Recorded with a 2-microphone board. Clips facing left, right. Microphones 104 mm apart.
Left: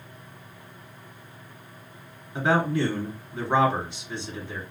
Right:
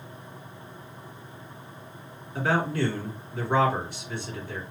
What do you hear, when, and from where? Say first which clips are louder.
2.4 s a man speaking: left 2 dB; 20° left (ahead or behind), 1.6 m